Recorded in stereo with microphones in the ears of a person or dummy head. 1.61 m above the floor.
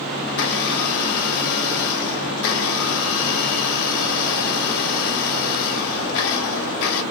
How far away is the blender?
About 2 m.